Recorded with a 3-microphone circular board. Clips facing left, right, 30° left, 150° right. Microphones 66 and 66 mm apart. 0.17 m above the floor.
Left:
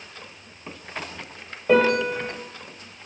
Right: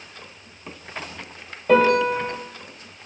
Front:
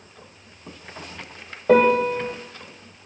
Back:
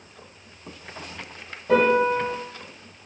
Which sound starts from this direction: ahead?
A piano, at 1.7 s.